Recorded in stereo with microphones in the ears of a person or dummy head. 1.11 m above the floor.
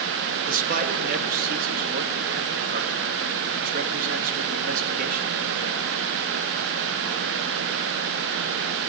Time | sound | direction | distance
0.5 | a man speaking | 45° right (ahead or behind) | 2 m